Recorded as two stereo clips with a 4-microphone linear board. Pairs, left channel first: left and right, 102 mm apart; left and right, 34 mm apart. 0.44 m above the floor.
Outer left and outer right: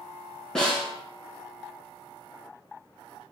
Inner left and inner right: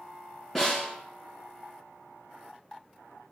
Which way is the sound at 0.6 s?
5° left (ahead or behind).